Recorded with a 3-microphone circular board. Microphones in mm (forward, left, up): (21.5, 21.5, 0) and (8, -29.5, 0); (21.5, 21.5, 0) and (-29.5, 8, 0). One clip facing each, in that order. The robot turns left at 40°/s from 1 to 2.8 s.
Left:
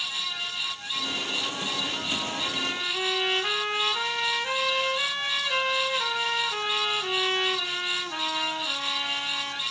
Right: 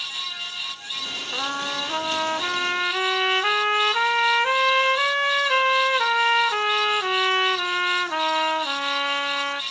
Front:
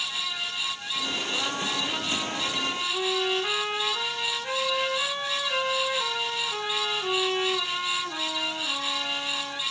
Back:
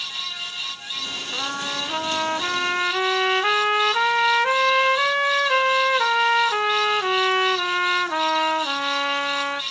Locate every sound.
1.3 s a trumpet: 90° right, 0.8 m; by 9.6 s 145° right, 0.8 m